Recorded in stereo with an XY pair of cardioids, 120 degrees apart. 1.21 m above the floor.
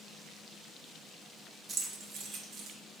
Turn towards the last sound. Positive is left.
turn(degrees=-80)